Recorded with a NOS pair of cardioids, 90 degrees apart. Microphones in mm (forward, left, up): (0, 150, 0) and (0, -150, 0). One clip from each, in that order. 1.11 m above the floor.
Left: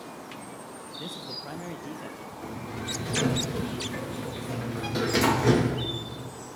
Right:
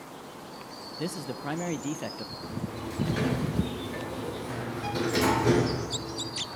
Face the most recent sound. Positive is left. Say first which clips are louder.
# left 2 dB
turn(degrees=25)